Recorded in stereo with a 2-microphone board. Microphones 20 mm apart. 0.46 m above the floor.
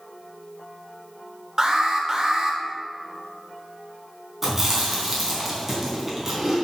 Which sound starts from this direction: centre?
Chewing, at 4.4 s.